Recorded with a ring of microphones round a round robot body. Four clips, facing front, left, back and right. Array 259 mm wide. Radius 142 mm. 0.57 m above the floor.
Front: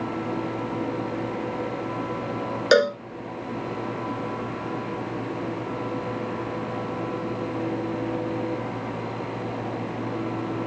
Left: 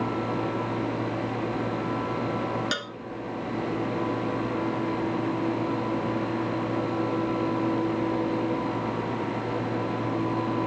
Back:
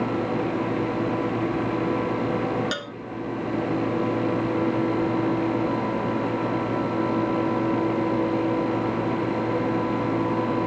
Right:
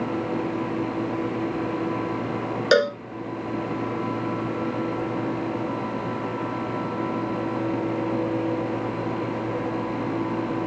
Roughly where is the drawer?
I don't hear a drawer.